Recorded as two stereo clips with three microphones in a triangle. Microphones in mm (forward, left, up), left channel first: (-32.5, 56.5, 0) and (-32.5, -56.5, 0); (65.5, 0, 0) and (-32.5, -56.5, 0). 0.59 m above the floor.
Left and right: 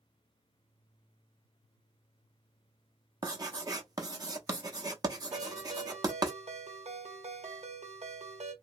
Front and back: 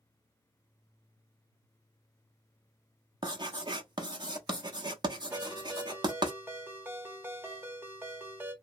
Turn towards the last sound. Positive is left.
turn(degrees=-75)